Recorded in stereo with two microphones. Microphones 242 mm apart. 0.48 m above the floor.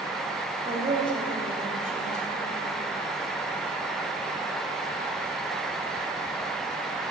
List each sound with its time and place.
0.7 s a woman speaking: 35° right (ahead or behind), 2 m